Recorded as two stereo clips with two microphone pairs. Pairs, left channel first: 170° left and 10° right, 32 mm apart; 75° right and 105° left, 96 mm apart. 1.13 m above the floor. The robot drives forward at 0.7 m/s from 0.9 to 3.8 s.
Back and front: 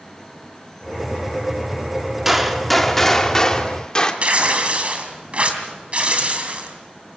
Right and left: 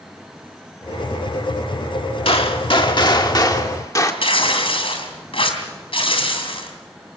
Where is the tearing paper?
60° right, 3 m.